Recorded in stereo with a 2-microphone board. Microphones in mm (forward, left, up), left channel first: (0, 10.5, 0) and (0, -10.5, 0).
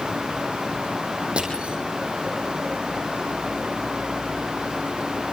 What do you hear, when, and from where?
1.4 s crushing: 60° right (ahead or behind), 6 m